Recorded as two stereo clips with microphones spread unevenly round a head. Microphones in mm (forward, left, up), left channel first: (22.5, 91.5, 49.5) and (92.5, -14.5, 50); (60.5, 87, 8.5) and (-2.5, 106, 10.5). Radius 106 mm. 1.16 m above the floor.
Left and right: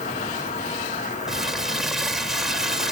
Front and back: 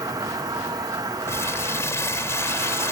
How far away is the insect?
About 2.5 m.